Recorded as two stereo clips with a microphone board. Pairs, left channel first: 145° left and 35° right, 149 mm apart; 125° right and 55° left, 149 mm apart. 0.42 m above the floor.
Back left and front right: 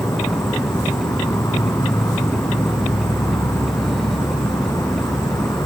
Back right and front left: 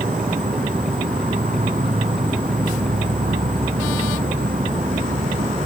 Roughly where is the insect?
Left.